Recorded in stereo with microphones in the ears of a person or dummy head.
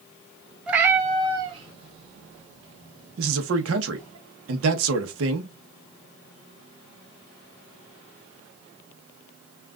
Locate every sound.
0.7 s a cat meowing: 10° right (ahead or behind), 0.7 m; by 4.2 s 45° right (ahead or behind), 2.5 m
3.2 s a man speaking: 85° right, 1.0 m